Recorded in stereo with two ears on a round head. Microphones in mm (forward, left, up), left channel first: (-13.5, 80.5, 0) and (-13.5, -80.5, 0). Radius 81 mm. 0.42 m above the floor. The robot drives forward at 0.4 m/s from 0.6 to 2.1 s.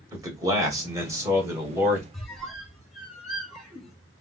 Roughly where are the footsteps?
I don't hear footsteps.